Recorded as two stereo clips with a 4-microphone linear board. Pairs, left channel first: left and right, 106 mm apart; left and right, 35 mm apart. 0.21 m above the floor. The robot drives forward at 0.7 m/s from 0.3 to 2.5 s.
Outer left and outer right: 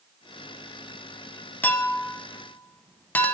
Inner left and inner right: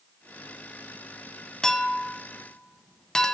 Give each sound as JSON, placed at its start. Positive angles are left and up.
{"t": 1.6, "sound": "a clink", "side_deg": 20, "distance_m": 0.6}